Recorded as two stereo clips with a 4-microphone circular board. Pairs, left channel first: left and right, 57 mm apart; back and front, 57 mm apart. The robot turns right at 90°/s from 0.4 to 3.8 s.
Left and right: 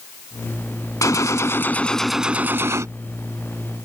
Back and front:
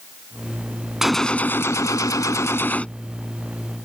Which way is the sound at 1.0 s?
80° left.